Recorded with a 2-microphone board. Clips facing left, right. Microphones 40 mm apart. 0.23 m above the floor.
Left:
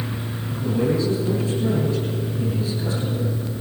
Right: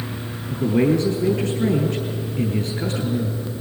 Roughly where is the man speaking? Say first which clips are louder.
Right 4 dB; right.